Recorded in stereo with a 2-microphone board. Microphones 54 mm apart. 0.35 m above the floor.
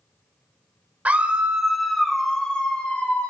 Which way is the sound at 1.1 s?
30° right (ahead or behind).